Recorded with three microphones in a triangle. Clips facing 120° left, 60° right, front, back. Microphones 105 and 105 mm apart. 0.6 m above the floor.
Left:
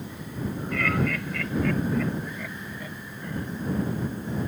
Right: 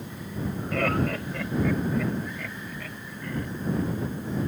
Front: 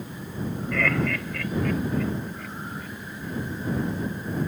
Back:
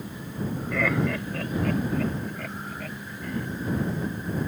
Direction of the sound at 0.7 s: 95° right.